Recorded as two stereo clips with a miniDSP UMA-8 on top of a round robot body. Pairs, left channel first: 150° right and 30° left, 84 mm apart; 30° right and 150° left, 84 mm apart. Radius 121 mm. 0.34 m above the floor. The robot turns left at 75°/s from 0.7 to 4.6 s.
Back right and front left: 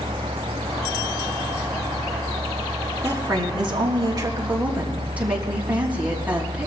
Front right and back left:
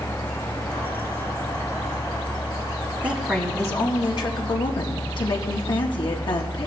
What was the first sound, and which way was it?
A woman speaking, 75° left.